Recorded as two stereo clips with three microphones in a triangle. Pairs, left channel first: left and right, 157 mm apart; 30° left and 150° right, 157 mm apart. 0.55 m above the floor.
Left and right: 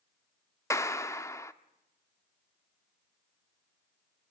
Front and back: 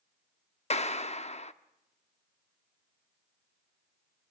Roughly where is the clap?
Ahead left.